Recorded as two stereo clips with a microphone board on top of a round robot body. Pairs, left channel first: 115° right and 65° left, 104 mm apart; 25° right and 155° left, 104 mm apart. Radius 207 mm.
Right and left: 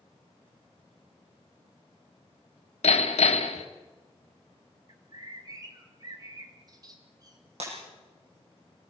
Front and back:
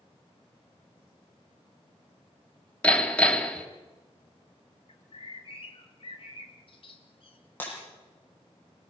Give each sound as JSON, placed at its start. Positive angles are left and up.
{"t": 2.8, "sound": "hammering", "azimuth_deg": -100, "distance_m": 2.0}
{"t": 4.9, "sound": "a bird", "azimuth_deg": 15, "distance_m": 2.0}
{"t": 7.6, "sound": "breaking glass", "azimuth_deg": 50, "distance_m": 8.5}